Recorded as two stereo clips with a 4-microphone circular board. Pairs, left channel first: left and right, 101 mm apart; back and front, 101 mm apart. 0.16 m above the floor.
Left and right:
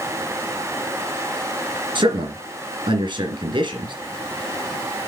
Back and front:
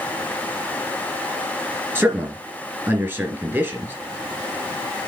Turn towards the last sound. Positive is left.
turn(degrees=-60)